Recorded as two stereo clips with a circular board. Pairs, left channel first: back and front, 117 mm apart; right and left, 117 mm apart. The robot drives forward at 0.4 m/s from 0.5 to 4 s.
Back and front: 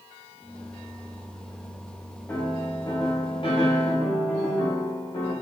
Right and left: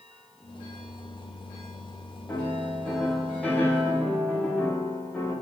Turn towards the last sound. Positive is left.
turn(degrees=-170)